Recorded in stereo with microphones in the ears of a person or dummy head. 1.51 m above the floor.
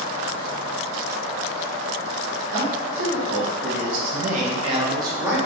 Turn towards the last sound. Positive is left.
turn(degrees=-15)  # may be behind; listen again after turning